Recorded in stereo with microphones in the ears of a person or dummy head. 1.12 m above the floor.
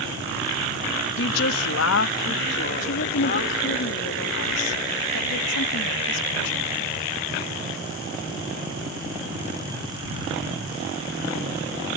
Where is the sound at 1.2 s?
60° left (ahead or behind); by 3.8 s 50° left (ahead or behind).